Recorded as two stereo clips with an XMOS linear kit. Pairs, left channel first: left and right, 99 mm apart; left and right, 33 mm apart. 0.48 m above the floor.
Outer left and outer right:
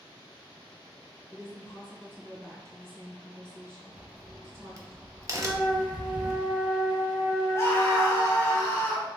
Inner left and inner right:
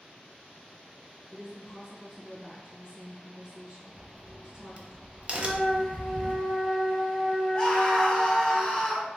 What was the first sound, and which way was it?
A woman speaking, 25° right (ahead or behind).